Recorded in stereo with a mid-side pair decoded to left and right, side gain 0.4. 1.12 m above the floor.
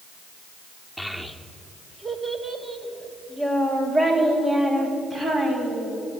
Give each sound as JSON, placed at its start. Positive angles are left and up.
{"t": 1.0, "sound": "a child speaking", "azimuth_deg": -10, "distance_m": 1.4}